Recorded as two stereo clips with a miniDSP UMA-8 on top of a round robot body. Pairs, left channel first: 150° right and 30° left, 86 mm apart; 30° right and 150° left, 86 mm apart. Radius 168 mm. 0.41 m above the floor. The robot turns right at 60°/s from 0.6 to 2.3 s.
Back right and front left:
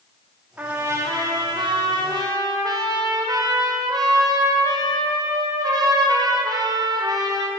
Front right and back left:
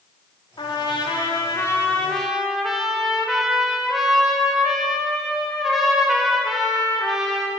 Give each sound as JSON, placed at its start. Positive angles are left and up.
{"t": 0.6, "sound": "a trumpet", "azimuth_deg": -40, "distance_m": 2.5}